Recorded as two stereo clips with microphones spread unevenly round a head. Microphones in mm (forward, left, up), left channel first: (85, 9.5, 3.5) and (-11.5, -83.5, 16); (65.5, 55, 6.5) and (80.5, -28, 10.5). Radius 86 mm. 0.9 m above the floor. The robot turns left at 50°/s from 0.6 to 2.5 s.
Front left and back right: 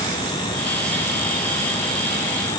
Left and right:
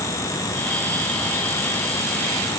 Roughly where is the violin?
I don't hear a violin.